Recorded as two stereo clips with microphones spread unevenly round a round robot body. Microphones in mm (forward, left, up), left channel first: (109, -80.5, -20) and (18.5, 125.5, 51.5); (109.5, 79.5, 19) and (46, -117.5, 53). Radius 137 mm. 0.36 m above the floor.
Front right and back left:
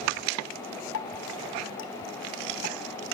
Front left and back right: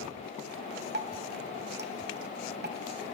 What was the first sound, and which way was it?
Dripping, 70° right.